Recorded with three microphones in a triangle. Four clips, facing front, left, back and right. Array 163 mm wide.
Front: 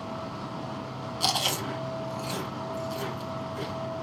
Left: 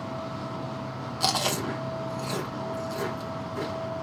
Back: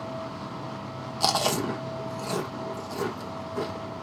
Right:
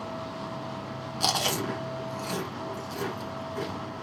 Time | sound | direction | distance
1.2 | chewing | 175° right | 1.1 m